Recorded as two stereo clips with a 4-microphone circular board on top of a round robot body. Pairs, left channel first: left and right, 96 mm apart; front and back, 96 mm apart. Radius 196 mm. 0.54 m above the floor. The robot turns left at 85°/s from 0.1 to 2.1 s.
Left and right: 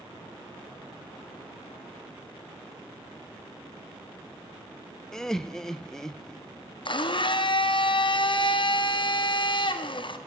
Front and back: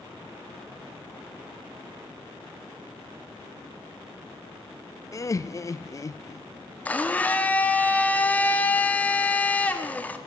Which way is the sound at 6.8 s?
75° left.